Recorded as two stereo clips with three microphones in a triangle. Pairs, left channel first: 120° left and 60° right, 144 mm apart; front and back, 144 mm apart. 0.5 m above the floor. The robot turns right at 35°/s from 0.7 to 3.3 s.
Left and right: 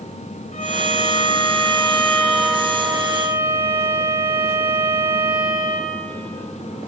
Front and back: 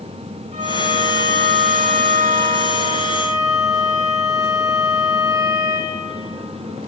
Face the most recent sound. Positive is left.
turn(degrees=-120)